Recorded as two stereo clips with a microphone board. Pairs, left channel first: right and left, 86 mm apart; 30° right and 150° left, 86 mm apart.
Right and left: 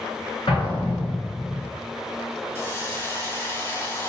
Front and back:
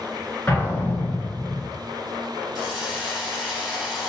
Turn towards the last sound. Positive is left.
turn(degrees=-130)